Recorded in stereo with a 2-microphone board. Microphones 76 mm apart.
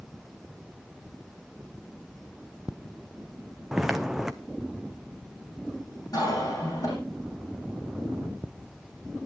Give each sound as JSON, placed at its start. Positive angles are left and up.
{"t": 3.7, "sound": "footsteps", "side_deg": -5, "distance_m": 0.8}
{"t": 6.1, "sound": "a cough", "side_deg": 50, "distance_m": 10.0}